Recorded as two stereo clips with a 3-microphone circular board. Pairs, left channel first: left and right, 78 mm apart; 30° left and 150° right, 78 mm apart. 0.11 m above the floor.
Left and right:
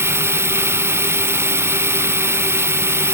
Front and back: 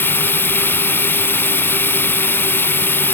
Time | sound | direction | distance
0.0 | running water | 35° right | ?